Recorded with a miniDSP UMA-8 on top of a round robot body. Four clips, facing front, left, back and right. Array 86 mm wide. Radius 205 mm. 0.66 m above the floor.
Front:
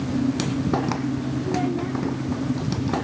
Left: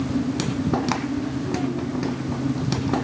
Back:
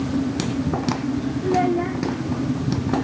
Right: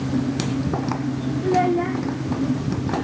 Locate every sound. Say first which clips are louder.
1.4 s a child speaking: right 7 dB, back 7 dB; 120° right